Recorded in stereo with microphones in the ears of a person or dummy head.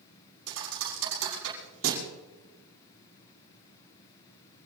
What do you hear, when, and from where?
0.5 s a thud: 75° right (ahead or behind), 6.5 m